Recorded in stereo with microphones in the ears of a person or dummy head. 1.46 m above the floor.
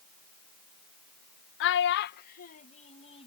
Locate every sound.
1.6 s a child speaking: 70° left (ahead or behind); by 3.3 s 35° left (ahead or behind)